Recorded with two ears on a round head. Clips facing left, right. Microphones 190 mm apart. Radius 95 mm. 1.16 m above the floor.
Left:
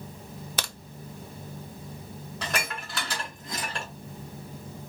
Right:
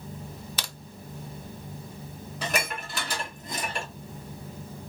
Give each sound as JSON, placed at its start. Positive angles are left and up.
{"t": 0.6, "sound": "a crack", "side_deg": 45, "distance_m": 0.6}
{"t": 2.4, "sound": "dishes clattering", "side_deg": -10, "distance_m": 1.9}